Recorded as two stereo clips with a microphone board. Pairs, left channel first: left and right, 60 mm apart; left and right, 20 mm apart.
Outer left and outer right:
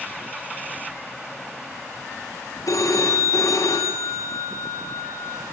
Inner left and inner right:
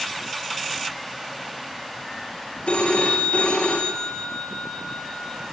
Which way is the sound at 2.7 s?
65° left (ahead or behind).